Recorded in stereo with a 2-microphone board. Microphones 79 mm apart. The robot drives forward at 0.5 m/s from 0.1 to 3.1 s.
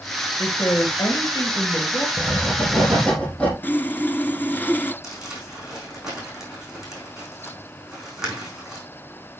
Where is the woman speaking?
50° left (ahead or behind), 3 m; by 2.1 s 55° left (ahead or behind), 2.5 m.